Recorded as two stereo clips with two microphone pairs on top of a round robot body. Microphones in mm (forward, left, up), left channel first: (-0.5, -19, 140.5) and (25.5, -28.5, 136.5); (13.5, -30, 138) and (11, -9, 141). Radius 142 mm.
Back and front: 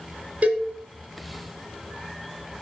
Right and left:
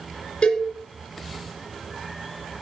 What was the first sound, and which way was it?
A cowbell, 50° right.